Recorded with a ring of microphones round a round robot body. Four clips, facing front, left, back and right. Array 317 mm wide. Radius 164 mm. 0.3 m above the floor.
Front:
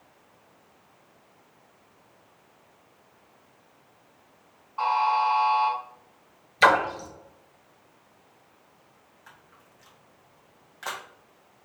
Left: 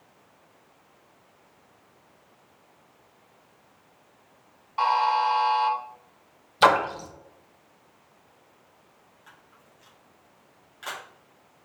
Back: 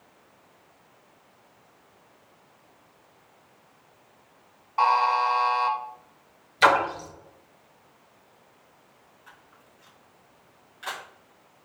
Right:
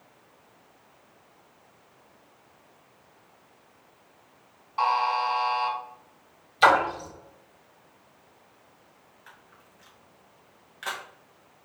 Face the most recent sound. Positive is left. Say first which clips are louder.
# right 1 dB, even
turn(degrees=-20)